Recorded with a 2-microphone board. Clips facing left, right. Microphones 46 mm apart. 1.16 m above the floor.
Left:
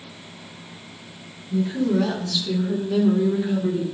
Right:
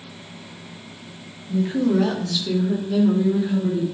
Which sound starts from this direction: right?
A woman speaking, at 1.5 s.